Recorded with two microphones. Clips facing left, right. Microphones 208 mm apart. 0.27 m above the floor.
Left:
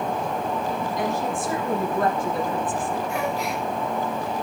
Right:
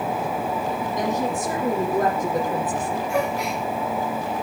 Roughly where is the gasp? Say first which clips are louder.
Right 2 dB; right.